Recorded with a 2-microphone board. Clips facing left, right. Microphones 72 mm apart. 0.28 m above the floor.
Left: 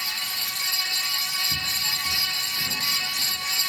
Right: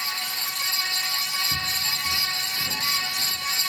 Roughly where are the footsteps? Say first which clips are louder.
Right 1 dB; right.